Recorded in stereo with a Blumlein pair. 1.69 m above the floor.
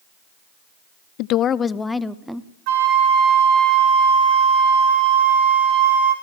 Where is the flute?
45° right, 4.5 m.